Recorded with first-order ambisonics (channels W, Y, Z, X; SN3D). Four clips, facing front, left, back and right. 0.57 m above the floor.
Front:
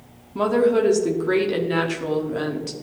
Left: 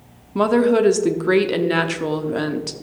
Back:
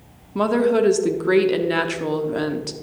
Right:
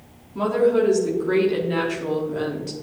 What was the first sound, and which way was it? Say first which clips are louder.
A woman speaking: left 3 dB, even; 110° left.